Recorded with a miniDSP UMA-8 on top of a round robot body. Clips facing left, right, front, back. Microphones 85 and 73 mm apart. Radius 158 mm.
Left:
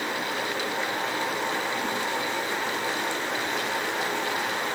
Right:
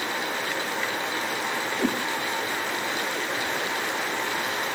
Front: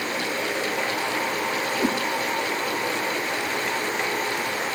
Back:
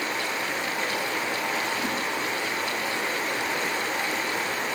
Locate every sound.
1.8 s a whoosh: 55° right, 2.0 m